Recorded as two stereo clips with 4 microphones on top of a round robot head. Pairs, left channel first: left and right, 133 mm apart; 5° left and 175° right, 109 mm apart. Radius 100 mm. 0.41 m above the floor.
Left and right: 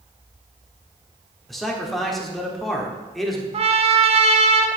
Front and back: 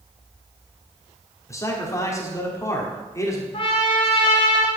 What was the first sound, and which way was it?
A man speaking, 5° left.